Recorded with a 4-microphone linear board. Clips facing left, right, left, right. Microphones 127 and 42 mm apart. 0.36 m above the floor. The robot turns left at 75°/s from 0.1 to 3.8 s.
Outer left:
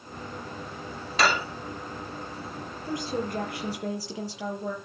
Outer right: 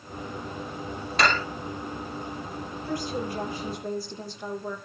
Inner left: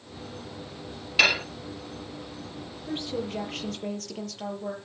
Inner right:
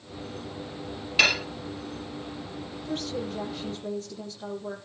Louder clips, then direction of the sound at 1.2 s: Even, inner left 1 dB; centre (ahead or behind).